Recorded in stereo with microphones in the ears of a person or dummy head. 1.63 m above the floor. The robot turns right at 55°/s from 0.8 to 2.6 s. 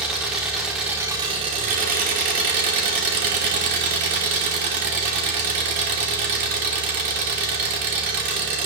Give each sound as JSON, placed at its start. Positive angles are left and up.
{"t": 0.0, "sound": "an engine running", "azimuth_deg": -175, "distance_m": 1.1}